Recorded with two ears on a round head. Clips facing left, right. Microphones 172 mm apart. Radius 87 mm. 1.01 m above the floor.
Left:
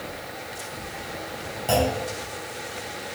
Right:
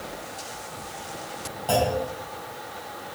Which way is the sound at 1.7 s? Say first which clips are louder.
Even; 15° left (ahead or behind).